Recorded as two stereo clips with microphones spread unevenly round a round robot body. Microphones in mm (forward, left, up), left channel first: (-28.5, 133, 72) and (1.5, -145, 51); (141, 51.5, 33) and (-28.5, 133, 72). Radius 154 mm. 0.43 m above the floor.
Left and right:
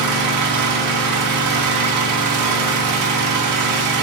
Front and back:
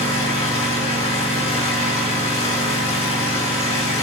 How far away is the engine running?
About 3 m.